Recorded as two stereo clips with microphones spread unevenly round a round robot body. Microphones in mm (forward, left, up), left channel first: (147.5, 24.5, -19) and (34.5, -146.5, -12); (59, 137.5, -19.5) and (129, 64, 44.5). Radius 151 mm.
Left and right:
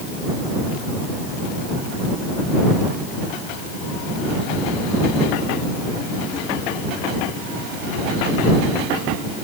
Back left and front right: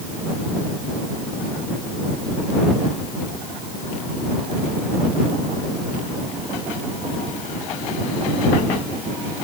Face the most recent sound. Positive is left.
No sound to turn to.